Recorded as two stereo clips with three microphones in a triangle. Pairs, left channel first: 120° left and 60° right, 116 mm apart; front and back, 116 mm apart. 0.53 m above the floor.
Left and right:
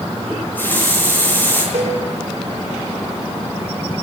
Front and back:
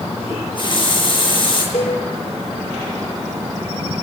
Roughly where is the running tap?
Ahead left.